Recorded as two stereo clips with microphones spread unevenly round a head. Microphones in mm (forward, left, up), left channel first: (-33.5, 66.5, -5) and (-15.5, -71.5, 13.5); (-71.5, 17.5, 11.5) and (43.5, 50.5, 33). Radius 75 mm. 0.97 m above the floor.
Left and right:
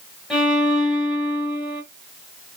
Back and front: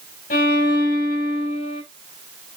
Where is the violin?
170° right, 3 m.